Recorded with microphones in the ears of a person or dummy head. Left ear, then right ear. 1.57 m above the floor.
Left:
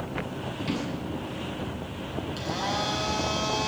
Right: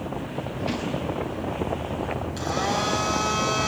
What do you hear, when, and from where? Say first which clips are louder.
0.6 s a drawer: right 3 dB; 5° left (ahead or behind), 7.5 m
2.4 s a blender: right 4 dB; 5° right (ahead or behind), 5.5 m